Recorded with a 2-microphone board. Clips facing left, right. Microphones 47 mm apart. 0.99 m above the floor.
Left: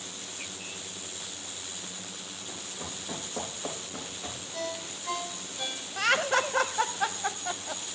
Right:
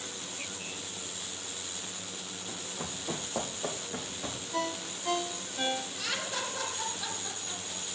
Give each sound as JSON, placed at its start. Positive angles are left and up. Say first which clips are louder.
{"t": 2.5, "sound": "running footsteps", "louder": "right 1 dB", "side_deg": -70, "distance_m": 3.5}
{"t": 4.5, "sound": "a ringtone", "louder": "right 3 dB", "side_deg": -55, "distance_m": 1.3}
{"t": 6.0, "sound": "laughter", "louder": "left 10 dB", "side_deg": 55, "distance_m": 0.8}